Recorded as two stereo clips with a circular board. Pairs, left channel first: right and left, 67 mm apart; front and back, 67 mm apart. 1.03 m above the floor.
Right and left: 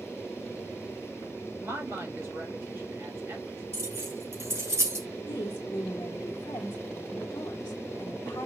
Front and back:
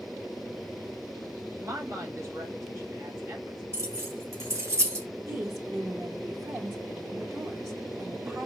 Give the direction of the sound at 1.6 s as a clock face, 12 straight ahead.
7 o'clock.